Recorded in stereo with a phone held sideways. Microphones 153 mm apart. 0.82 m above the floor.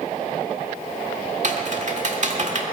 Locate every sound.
1.4 s typing on a keyboard: 55° right (ahead or behind), 1.5 m